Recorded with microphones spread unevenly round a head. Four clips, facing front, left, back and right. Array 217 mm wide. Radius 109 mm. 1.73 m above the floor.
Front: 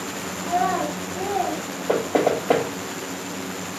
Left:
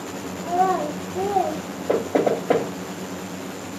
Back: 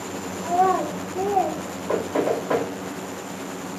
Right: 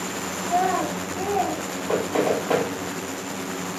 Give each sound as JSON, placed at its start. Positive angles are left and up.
{"t": 0.4, "sound": "a child speaking", "azimuth_deg": 150, "distance_m": 2.5}
{"t": 1.9, "sound": "knocking", "azimuth_deg": 50, "distance_m": 2.0}